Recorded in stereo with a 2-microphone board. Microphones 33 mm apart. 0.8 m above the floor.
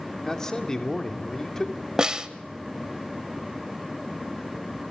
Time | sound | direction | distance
0.2 | a man speaking | 20° left (ahead or behind) | 2.5 m
2.0 | a snare drum | 20° right (ahead or behind) | 1.2 m